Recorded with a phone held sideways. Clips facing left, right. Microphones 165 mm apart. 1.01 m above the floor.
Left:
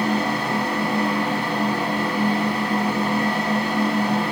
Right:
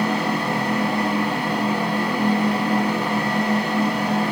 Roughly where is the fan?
Centre.